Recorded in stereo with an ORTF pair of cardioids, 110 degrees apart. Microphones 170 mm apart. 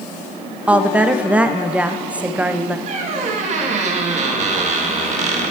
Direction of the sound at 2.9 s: 45° right.